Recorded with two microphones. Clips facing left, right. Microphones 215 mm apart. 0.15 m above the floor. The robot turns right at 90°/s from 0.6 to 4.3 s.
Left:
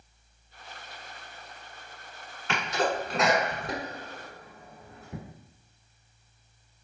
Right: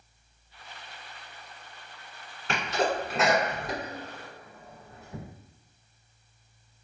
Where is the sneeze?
35° right (ahead or behind), 1.4 m; by 5.2 s 40° left (ahead or behind), 1.4 m.